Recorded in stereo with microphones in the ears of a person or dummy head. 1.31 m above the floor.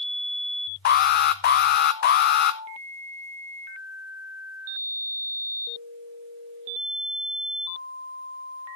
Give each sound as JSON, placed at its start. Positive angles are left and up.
{"t": 0.8, "sound": "an alarm", "side_deg": 50, "distance_m": 1.0}